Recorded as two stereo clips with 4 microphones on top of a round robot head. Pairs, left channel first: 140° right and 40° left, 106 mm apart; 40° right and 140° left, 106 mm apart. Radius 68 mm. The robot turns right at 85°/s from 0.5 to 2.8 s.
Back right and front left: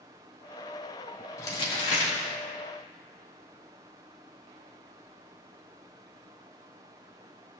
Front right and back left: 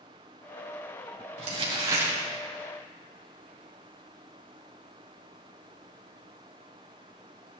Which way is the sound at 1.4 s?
155° left.